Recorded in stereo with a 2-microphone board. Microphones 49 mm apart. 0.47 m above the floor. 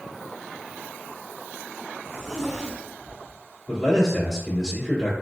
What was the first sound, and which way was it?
A zipper, 10° right (ahead or behind).